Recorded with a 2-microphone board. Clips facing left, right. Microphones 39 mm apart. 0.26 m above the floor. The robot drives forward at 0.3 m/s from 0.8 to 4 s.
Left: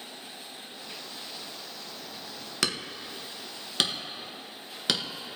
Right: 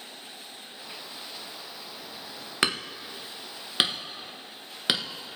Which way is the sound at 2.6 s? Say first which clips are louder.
Right 4 dB; 25° right (ahead or behind).